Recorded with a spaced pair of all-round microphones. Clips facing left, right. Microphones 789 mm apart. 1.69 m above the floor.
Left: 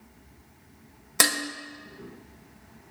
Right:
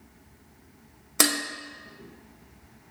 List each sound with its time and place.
1.2 s dishes clattering: 35° left (ahead or behind), 0.8 m